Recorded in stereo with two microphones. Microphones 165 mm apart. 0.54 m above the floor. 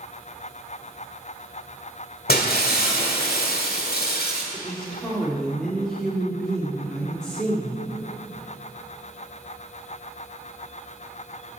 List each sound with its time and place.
2.3 s breaking glass: 65° left (ahead or behind), 1.4 m
4.5 s a woman speaking: 5° left (ahead or behind), 1.1 m